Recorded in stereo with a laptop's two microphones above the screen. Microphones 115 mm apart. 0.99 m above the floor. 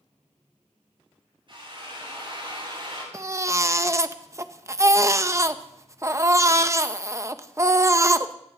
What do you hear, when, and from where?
1.5 s a drill: 45° right (ahead or behind), 8.5 m
3.1 s a baby crying: 25° right (ahead or behind), 0.7 m